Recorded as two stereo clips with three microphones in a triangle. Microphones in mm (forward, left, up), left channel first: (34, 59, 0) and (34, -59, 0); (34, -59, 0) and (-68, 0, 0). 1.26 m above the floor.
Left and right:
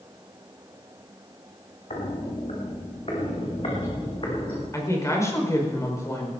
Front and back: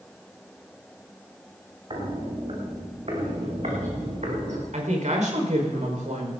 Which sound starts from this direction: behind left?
A woman speaking, at 4.7 s.